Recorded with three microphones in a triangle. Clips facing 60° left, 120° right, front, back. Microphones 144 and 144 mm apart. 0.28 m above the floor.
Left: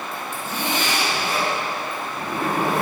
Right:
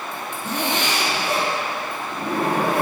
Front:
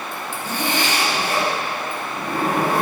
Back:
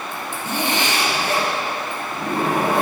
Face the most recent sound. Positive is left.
turn(degrees=-110)